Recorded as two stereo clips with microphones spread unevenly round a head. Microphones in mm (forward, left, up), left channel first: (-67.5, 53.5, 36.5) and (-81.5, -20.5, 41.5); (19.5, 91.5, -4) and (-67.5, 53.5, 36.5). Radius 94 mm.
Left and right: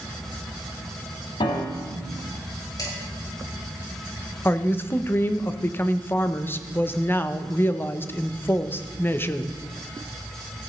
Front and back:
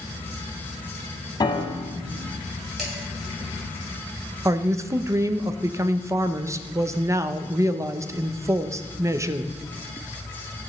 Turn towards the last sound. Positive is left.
turn(degrees=145)